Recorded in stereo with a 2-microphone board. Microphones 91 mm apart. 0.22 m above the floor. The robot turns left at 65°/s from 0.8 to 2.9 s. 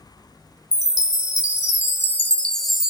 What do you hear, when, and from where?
0.7 s a chime: 125° left, 0.5 m; by 2.9 s 15° right, 0.5 m